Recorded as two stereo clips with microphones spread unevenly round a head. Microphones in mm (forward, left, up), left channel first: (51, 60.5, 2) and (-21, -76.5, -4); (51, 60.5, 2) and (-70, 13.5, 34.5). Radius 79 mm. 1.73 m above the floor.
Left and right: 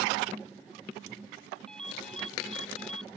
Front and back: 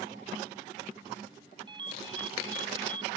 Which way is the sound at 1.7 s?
150° left.